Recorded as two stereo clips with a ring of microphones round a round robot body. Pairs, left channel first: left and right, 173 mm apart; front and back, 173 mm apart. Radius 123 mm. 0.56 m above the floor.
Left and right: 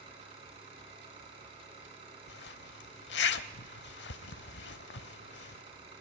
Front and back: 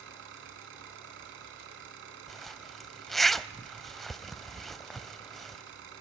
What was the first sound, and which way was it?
An engine running, 160° right.